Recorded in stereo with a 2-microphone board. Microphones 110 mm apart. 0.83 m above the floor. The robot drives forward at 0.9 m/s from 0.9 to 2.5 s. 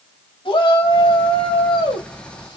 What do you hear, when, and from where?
0.5 s a shout: 55° left (ahead or behind), 6 m; by 2.6 s 45° left (ahead or behind), 7 m